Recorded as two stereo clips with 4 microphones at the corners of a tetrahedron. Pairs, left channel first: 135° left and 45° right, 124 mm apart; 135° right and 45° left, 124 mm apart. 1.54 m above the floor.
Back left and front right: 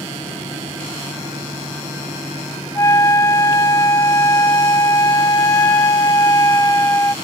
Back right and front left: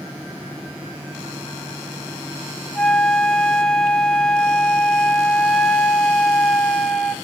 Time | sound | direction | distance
2.8 | a flute | 150° left | 0.6 m